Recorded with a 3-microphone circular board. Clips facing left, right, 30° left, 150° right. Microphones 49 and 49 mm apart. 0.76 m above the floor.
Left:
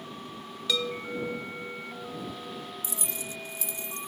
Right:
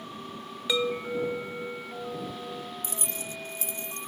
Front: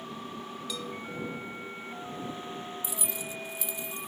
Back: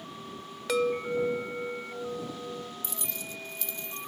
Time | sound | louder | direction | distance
0.7 | a chime | right 3 dB, back 14 dB | 160° right | ?
2.8 | keys jangling | right 1 dB, front 2 dB | 50° right | ?